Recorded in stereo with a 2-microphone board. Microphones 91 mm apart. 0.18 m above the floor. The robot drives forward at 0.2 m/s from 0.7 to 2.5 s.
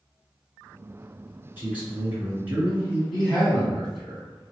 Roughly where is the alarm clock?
No alarm clock in this recording.